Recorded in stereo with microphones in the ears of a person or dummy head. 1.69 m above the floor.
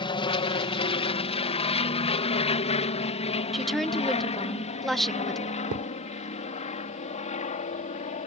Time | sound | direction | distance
0.0 | an aircraft | 25° left (ahead or behind) | ?
3.5 | a woman speaking | centre (ahead or behind) | ?
5.7 | a thud | 45° right (ahead or behind) | ?